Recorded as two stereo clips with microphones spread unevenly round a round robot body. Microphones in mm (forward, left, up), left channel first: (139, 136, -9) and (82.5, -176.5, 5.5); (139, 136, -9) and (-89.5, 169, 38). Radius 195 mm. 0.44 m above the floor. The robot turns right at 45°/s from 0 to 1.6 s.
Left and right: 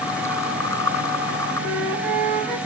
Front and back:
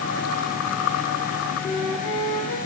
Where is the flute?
95° right, 2 m.